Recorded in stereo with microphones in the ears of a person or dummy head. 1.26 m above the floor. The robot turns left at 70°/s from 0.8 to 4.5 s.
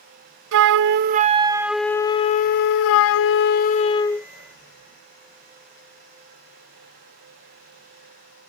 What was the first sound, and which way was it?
A flute, 110° right.